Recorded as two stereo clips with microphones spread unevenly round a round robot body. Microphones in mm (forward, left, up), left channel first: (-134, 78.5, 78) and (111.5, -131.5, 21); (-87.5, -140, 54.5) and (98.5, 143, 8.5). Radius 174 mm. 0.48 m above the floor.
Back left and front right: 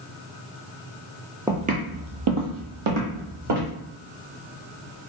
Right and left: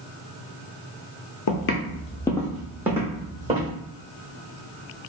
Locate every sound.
1.5 s footsteps: 135° right, 0.6 m; by 3.7 s 20° right, 1.6 m